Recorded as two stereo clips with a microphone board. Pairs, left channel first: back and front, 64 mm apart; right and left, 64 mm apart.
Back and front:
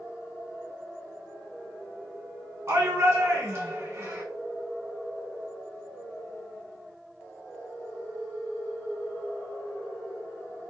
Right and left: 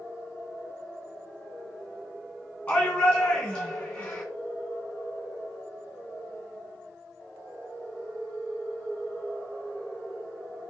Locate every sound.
2.7 s a shout: 20° right, 2.5 m